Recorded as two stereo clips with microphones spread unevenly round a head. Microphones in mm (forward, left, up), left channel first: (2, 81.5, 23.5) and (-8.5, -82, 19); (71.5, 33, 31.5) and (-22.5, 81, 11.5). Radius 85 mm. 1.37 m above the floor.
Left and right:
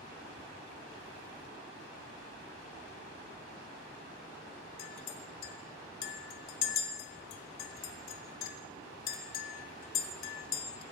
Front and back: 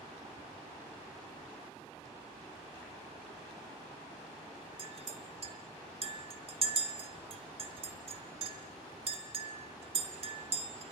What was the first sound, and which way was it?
A clink, 125° left.